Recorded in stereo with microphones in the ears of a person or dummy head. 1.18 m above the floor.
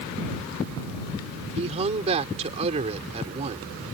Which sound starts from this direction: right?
A man speaking, at 1.6 s.